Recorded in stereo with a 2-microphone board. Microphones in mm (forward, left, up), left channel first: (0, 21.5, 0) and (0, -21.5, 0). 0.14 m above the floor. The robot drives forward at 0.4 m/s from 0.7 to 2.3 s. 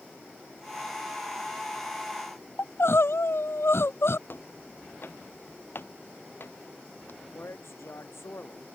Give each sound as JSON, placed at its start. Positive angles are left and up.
{"t": 2.6, "sound": "crying", "side_deg": 75}
{"t": 4.3, "sound": "footsteps", "side_deg": 60}
{"t": 7.2, "sound": "a man speaking", "side_deg": 80}